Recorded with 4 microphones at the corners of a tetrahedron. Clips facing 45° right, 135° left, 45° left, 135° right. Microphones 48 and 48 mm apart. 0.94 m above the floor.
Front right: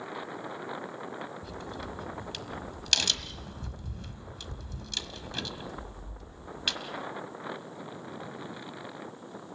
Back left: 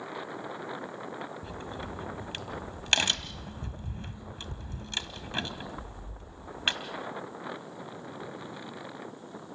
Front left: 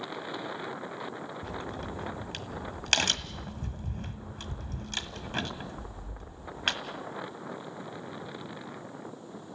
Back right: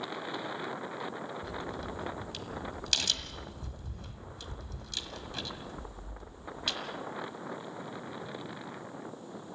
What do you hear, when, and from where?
1.4 s a crack: 75° left, 1.5 m